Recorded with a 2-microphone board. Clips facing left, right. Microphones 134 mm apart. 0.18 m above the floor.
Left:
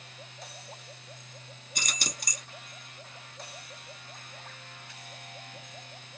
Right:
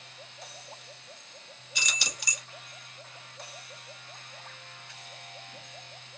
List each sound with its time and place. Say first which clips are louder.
1.8 s keys jangling: left 1 dB; 50° left (ahead or behind), 1.3 m